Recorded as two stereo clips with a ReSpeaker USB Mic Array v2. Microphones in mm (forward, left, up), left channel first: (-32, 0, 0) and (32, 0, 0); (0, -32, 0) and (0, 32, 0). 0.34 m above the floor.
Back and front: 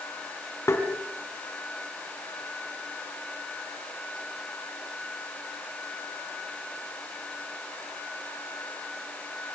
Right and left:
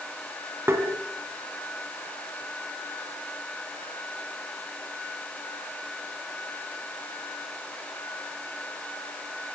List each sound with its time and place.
0.7 s tapping: 135° left, 2.5 m